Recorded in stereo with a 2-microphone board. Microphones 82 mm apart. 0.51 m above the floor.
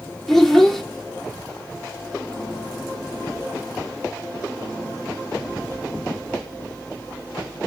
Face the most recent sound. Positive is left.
turn(degrees=5)  # may be behind; listen again after turning